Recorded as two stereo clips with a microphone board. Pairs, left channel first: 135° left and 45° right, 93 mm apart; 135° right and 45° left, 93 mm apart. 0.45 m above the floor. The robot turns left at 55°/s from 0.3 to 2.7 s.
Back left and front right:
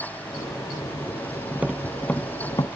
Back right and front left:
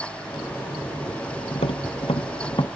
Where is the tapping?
115° right; by 2.7 s straight behind.